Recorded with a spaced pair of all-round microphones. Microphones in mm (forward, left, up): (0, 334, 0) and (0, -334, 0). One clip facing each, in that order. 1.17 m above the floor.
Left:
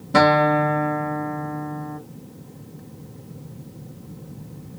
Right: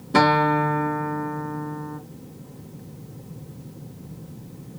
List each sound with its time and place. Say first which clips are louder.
0.1 s a guitar: left 2 dB; 15° left (ahead or behind), 0.8 m